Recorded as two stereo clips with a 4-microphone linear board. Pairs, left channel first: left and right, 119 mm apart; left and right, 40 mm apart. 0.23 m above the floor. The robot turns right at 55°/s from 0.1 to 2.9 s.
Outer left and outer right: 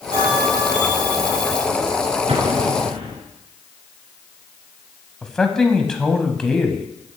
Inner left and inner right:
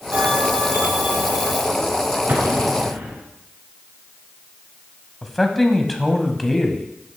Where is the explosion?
110° right, 1.8 m; by 3.2 s 75° right, 1.8 m.